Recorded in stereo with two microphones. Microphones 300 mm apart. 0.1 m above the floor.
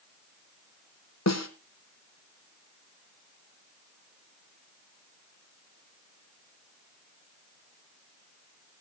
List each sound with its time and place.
1.3 s a snare drum: 60° left (ahead or behind), 1.3 m